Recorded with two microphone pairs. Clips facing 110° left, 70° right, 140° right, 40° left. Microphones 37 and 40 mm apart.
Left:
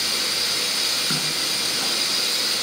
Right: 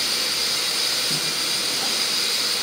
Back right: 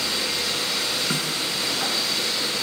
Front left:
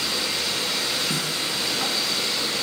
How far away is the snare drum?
About 3.5 m.